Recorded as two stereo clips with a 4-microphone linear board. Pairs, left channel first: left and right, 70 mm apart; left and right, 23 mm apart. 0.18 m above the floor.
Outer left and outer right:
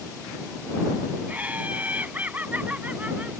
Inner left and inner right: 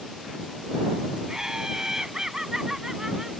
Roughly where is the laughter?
Right.